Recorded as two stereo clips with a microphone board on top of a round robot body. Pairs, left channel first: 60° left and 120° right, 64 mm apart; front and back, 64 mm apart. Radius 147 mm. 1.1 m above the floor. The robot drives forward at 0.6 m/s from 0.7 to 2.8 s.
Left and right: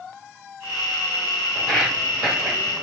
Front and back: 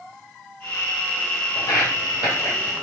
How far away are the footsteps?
About 2 m.